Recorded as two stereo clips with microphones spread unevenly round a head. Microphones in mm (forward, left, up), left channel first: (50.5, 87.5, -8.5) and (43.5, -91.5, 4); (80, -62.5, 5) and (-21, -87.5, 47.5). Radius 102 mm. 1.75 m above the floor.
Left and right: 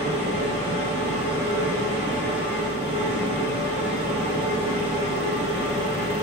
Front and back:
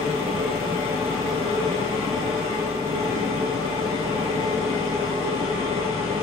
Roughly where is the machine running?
Behind left.